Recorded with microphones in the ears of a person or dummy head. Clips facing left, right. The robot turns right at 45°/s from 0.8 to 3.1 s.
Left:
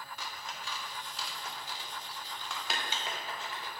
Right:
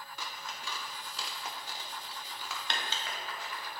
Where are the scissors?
80° right, 0.5 m; by 3.7 s 20° left (ahead or behind), 0.5 m.